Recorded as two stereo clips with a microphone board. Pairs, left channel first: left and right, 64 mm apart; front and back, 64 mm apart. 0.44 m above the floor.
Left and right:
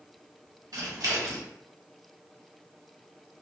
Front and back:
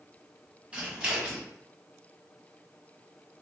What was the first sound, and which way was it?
Scissors, 105° right.